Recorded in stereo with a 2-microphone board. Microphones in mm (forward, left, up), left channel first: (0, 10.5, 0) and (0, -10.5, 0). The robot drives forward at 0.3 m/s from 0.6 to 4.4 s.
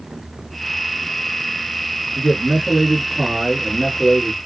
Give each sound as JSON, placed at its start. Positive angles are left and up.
{"t": 2.1, "sound": "a man speaking", "side_deg": -30, "distance_m": 1.9}